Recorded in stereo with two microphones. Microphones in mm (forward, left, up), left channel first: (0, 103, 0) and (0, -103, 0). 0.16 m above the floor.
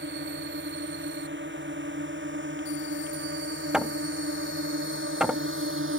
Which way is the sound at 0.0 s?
65° right (ahead or behind).